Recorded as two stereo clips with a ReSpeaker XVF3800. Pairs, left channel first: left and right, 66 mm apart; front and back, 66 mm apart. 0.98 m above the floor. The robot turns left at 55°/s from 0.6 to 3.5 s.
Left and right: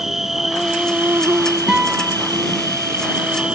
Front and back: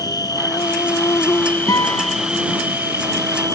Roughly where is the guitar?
Ahead.